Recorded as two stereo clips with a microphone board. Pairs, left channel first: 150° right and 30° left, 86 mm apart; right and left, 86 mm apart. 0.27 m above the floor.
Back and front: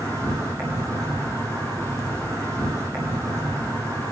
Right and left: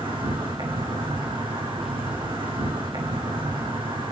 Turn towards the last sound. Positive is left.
turn(degrees=85)